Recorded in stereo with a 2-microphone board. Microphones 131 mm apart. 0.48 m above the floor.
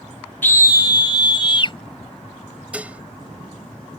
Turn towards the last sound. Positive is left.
turn(degrees=-10)  # may be behind; listen again after turning